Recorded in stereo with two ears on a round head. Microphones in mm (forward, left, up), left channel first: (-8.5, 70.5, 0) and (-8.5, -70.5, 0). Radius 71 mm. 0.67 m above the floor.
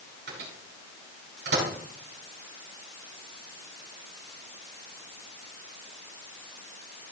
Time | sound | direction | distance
0.3 | a microwave | 70° right (ahead or behind) | 5 m